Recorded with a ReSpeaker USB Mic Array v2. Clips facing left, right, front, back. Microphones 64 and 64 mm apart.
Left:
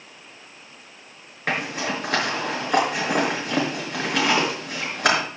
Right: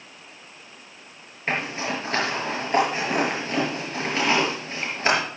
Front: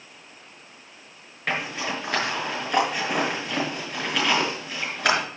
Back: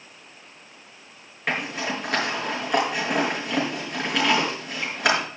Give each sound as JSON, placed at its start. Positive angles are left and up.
{"t": 1.5, "sound": "a zipper", "azimuth_deg": 95, "distance_m": 5.0}